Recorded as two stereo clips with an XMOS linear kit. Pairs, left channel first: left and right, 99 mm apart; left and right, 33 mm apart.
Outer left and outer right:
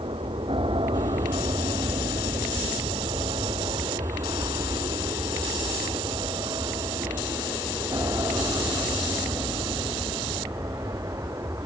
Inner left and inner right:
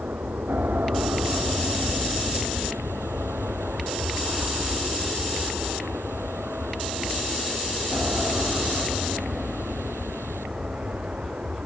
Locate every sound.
0.0 s an aircraft: 75° right (ahead or behind); by 11.7 s 35° right (ahead or behind)